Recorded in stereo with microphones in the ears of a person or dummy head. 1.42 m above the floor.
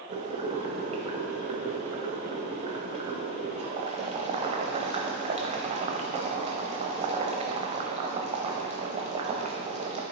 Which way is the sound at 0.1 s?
35° right (ahead or behind).